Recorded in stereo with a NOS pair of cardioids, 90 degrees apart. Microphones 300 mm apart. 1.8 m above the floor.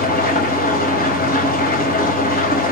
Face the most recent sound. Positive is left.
turn(degrees=30)